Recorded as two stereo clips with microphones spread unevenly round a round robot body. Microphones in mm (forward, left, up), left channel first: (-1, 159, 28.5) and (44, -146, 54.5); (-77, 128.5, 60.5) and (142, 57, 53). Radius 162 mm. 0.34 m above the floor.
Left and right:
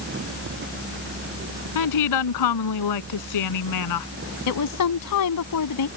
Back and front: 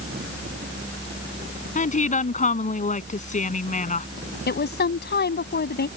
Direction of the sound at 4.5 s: 125° left.